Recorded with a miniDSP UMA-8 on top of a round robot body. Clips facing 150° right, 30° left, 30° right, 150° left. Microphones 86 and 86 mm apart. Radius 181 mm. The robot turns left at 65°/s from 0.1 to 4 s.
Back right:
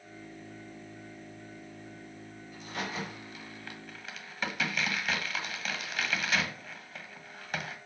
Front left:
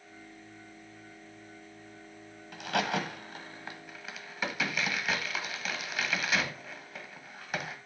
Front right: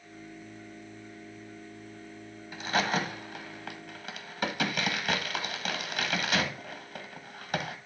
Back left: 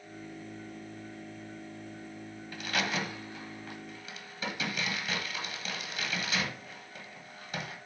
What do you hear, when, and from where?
2.5 s a crack: 45° left, 1.9 m; by 7.8 s 55° right, 1.9 m